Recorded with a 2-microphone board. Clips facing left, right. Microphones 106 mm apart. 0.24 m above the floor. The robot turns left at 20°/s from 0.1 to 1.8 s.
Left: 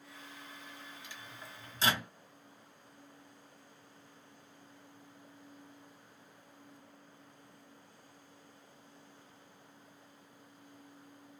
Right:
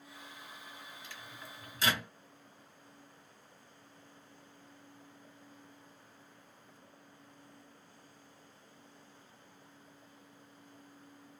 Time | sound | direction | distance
1.0 | a microwave | 15° left (ahead or behind) | 1.1 m